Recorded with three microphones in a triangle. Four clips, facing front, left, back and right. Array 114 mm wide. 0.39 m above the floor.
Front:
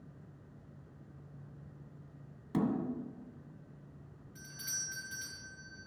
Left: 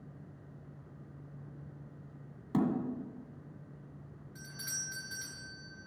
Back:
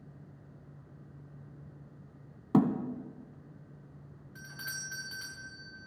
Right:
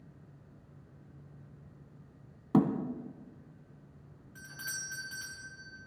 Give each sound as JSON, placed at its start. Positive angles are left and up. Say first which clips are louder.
{"t": 2.5, "sound": "a thud", "louder": "right 4 dB, back 7 dB", "azimuth_deg": -150, "distance_m": 1.6}
{"t": 4.3, "sound": "a doorbell", "louder": "right 5 dB, back 6 dB", "azimuth_deg": -160, "distance_m": 3.5}